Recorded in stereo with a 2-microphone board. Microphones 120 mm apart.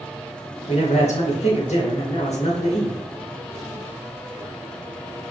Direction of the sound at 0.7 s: 70° left (ahead or behind).